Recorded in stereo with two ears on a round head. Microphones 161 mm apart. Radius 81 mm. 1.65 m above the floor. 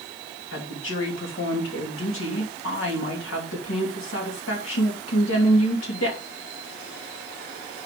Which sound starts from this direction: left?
A woman speaking, at 0.5 s.